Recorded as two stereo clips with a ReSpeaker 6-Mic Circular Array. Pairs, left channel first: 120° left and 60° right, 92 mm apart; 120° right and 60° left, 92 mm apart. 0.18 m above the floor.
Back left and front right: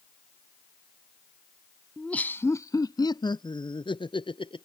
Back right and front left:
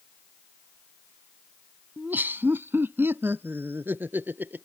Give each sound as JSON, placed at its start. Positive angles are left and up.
{"t": 2.0, "sound": "laughter", "azimuth_deg": 45}